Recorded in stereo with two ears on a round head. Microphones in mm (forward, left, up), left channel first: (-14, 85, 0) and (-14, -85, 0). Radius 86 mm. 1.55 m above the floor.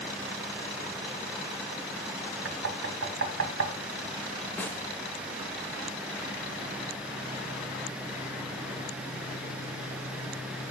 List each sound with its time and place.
2.5 s knocking: 75° right (ahead or behind), 1.9 m
4.6 s a snare drum: 10° left (ahead or behind), 1.2 m